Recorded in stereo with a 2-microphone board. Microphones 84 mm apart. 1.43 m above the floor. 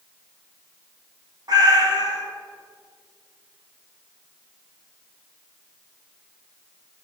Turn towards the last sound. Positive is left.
turn(degrees=-50)  # may be behind; listen again after turning